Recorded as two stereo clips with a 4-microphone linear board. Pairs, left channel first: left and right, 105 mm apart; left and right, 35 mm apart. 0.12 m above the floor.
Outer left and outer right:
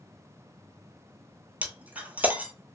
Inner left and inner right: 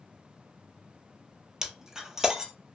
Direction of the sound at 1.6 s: 15° right (ahead or behind).